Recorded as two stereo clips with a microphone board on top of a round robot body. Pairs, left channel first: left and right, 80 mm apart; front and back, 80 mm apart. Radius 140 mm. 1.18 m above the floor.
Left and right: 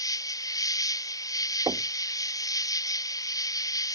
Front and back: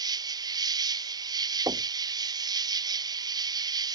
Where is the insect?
140° left.